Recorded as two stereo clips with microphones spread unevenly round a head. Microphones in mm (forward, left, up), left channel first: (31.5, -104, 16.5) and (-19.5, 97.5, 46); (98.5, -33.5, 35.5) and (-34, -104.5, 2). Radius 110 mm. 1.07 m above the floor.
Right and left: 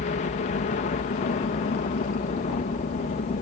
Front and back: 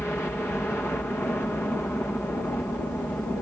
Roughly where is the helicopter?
Ahead right.